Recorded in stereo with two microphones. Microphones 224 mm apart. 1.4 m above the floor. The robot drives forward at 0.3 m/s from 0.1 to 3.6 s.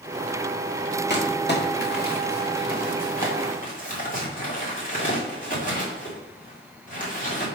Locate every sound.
1.1 s crumpling: 50° left (ahead or behind), 1.8 m; by 7.5 s 35° left (ahead or behind), 2.5 m